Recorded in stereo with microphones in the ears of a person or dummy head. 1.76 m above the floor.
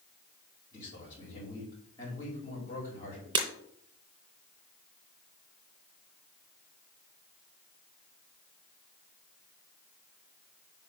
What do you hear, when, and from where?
0.7 s a man speaking: 25° left (ahead or behind), 4.5 m
3.4 s breaking glass: 25° right (ahead or behind), 3.5 m